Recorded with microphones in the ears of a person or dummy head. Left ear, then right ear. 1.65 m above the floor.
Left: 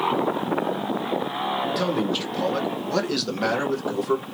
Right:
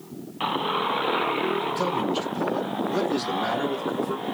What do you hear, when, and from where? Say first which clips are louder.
1.8 s a man speaking: left 1 dB; 20° left (ahead or behind), 1.5 m; by 4.2 s 80° left, 1.9 m